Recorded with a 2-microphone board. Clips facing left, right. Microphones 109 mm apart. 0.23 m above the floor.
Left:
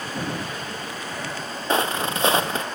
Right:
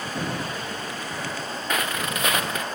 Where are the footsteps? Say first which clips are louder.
Left 5 dB; 30° left (ahead or behind), 1.3 m.